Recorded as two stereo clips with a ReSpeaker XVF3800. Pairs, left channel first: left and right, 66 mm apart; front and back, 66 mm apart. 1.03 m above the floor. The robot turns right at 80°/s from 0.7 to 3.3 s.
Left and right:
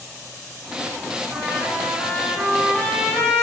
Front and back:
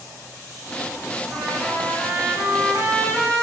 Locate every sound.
1.3 s a trumpet: 95° right, 1.3 m; by 3.4 s 65° left, 1.3 m